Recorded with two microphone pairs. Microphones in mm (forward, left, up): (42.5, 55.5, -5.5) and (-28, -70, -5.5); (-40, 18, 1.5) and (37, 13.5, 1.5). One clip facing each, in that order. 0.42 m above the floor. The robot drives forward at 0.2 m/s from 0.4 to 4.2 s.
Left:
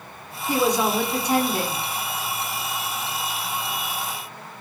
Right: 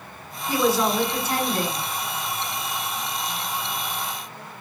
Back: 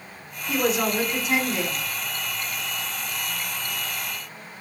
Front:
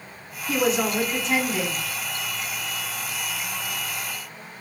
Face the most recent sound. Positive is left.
turn(degrees=155)